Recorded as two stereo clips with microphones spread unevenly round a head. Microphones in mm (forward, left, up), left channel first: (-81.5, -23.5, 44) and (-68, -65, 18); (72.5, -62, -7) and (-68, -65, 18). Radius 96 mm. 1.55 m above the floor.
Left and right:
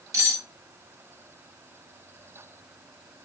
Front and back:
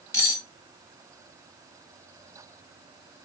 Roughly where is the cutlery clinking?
Right.